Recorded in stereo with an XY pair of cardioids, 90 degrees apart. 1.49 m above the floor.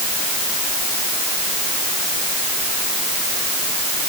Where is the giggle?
I don't hear a giggle.